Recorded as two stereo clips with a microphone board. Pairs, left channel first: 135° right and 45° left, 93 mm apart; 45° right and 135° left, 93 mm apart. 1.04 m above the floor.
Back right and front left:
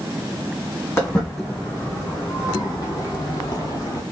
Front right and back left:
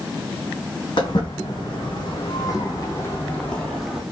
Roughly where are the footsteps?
Right.